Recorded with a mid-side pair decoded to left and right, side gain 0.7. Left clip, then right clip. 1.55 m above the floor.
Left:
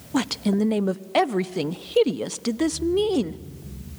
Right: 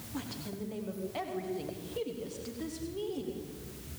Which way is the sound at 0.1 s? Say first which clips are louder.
Left 17 dB; 60° left.